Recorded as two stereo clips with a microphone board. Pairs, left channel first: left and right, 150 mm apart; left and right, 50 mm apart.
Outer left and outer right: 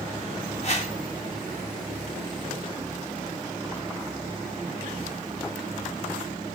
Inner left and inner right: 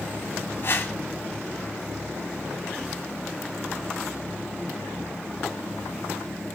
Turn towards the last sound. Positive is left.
turn(degrees=50)  # may be behind; listen again after turning